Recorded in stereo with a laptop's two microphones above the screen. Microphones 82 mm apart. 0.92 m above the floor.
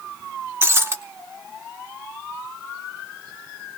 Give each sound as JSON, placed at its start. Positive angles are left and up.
{"t": 0.6, "sound": "breaking glass", "side_deg": -30, "distance_m": 0.8}